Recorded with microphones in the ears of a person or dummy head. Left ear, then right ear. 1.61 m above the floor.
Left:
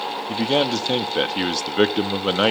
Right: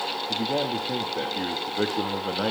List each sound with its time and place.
0.3 s a man speaking: 85° left, 0.6 m